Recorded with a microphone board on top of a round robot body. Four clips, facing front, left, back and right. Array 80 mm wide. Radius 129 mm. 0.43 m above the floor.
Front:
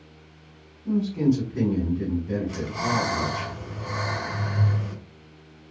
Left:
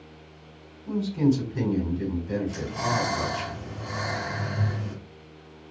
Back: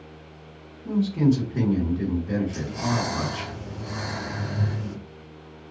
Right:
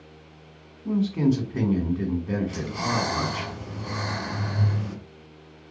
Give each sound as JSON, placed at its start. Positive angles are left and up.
{"t": 0.8, "sound": "a man speaking", "azimuth_deg": -105, "distance_m": 1.9}
{"t": 2.5, "sound": "breathing", "azimuth_deg": -20, "distance_m": 2.0}